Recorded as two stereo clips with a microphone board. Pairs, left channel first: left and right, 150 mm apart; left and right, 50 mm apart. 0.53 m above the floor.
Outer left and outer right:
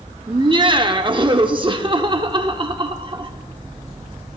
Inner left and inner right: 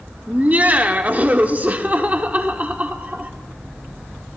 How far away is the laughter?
About 1.0 m.